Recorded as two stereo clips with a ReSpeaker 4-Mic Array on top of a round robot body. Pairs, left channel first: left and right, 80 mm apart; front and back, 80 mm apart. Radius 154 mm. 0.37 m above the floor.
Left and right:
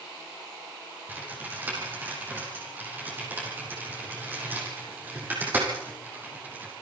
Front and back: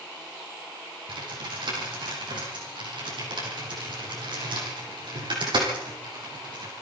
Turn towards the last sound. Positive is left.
turn(degrees=-160)